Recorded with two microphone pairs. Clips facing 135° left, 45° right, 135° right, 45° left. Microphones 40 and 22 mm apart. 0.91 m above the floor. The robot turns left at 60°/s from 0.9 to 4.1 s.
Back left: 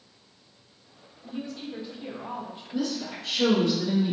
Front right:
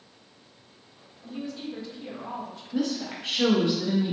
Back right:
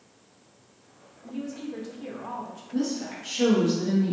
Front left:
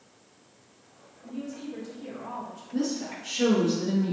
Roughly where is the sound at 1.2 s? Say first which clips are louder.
Front right 1 dB, back right 2 dB; behind right.